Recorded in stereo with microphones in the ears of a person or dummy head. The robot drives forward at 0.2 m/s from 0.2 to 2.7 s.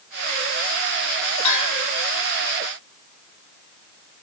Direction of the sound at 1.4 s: 35° left (ahead or behind).